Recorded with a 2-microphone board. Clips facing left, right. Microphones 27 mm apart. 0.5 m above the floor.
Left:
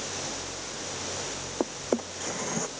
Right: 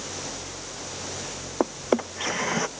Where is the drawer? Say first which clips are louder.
Right 5 dB; 50° right (ahead or behind).